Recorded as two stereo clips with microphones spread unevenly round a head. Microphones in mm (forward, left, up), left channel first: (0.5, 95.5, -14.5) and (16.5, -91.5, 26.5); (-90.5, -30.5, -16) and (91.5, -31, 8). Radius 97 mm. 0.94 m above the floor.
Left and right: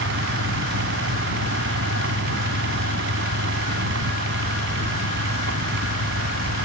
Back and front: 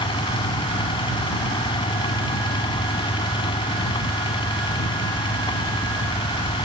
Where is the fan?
115° right.